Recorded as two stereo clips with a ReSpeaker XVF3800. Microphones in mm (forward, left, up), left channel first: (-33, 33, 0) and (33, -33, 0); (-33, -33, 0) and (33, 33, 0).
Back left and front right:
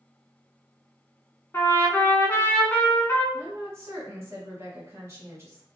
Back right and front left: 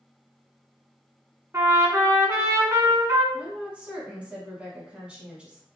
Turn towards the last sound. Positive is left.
turn(degrees=-20)